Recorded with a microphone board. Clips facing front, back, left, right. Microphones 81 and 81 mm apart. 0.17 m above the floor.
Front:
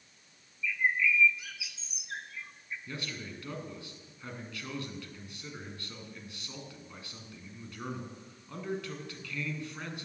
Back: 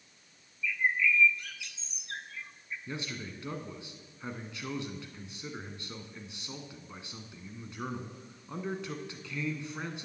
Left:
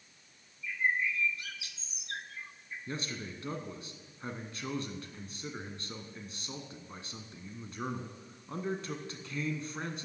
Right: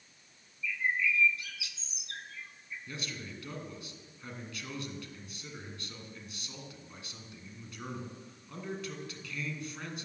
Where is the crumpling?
I don't hear crumpling.